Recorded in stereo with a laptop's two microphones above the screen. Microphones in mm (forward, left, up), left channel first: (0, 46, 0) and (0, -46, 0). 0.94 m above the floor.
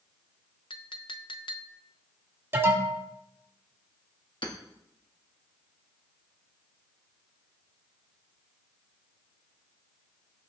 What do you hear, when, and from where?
0.7 s a clink: 65° left (ahead or behind), 0.7 m
2.5 s an alarm: 25° right (ahead or behind), 3 m
4.4 s hammering: 60° left (ahead or behind), 1.7 m